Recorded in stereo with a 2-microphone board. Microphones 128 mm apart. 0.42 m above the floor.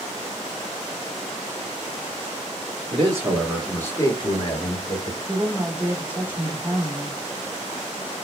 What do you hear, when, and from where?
2.9 s a man speaking: 30° right (ahead or behind), 0.9 m; by 5.2 s 60° left (ahead or behind), 1.5 m
5.3 s a woman speaking: 10° right (ahead or behind), 0.9 m